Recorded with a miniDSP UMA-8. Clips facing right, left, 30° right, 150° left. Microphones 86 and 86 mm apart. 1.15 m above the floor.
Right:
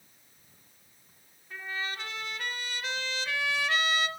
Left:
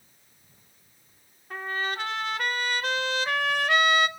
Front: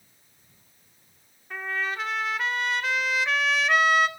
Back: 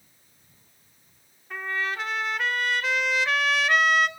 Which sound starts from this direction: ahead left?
A trumpet, at 1.5 s.